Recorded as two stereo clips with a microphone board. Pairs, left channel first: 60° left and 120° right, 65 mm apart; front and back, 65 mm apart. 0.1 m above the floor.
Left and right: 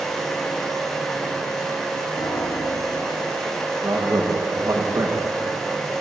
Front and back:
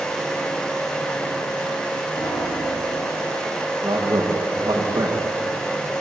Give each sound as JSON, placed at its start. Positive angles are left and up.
{"t": 2.2, "sound": "a piano", "azimuth_deg": 35, "distance_m": 7.5}
{"t": 3.8, "sound": "a man speaking", "azimuth_deg": -160, "distance_m": 7.0}